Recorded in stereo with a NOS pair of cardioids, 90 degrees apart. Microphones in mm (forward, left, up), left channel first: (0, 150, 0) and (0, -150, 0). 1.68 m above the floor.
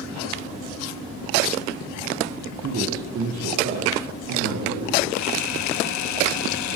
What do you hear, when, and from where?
2.6 s a man speaking: 45° right, 1.5 m; by 5.0 s 70° right, 3.5 m
5.1 s a camera shutter: 65° left, 0.7 m